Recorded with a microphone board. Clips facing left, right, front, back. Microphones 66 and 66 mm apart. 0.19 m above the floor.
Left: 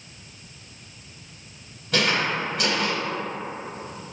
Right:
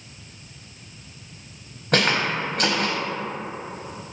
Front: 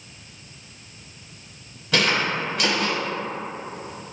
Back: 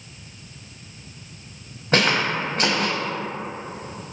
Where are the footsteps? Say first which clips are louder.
Right 2 dB, back 2 dB; 125° right, 0.8 m.